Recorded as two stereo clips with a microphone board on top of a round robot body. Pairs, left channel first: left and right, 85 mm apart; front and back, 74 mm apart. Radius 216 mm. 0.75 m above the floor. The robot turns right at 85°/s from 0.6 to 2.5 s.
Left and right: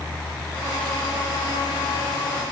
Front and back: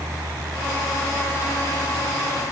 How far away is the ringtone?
I don't hear a ringtone.